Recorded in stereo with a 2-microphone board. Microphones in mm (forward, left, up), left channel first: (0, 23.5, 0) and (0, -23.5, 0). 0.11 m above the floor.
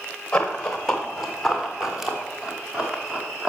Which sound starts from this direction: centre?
Running footsteps, at 0.3 s.